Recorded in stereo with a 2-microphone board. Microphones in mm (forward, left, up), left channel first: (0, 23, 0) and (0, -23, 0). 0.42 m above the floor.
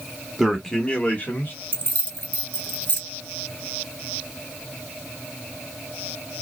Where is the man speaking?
10° right (ahead or behind), 1.1 m; by 1.5 s 40° left (ahead or behind), 1.5 m.